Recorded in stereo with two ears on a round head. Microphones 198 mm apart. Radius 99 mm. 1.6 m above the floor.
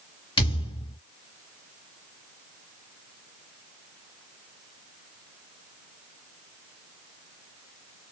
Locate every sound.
0.4 s a thud: 25° left (ahead or behind), 2.5 m